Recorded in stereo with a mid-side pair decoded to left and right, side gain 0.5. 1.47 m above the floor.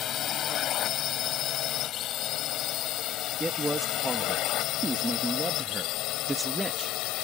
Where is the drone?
60° left; by 7.2 s 80° left.